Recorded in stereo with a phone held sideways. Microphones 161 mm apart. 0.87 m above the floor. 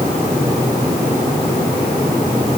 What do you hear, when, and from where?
Only background noise.